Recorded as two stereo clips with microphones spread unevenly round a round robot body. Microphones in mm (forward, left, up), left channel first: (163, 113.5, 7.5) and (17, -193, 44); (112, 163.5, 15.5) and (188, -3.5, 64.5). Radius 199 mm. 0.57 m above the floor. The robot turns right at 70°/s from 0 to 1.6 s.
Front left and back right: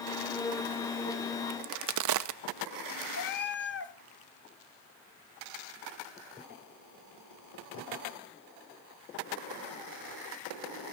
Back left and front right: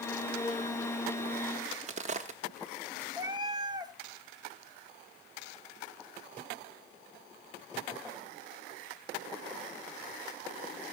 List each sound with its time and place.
1.5 s a crack: 130° right, 0.5 m; by 3.0 s 125° right, 0.5 m
3.1 s a cat meowing: 5° left, 1.1 m